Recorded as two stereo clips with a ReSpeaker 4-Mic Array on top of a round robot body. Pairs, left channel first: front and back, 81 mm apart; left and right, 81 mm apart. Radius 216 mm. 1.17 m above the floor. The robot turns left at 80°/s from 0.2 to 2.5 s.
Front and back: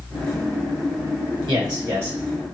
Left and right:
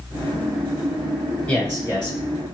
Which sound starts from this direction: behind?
A man speaking, at 1.5 s.